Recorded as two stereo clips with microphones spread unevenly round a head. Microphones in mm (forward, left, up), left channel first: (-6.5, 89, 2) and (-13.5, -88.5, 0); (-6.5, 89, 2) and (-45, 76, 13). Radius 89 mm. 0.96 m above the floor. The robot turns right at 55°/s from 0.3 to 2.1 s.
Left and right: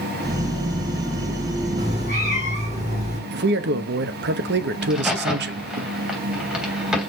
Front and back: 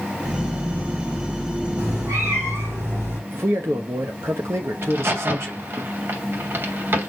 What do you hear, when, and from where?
1.8 s a cat meowing: 160° right, 5.5 m; by 3.2 s 145° right, 5.5 m
3.3 s a man speaking: 110° right, 1.0 m
4.8 s a crack: straight behind, 3 m